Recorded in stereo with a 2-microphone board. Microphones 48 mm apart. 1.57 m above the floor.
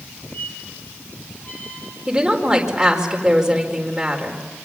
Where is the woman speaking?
15° right (ahead or behind), 4.5 m.